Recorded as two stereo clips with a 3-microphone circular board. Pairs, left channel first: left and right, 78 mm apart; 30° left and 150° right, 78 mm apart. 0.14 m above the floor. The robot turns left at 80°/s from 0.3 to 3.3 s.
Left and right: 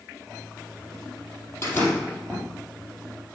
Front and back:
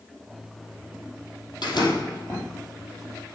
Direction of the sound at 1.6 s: 35° left.